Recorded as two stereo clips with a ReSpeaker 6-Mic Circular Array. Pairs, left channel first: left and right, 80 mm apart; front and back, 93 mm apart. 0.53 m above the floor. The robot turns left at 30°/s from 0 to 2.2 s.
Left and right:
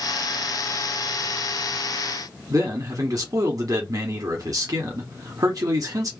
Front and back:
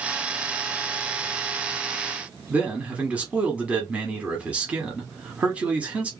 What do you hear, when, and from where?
2.5 s a man speaking: 110° right, 1.0 m